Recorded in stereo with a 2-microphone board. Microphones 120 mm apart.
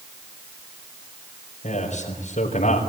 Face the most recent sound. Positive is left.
turn(degrees=85)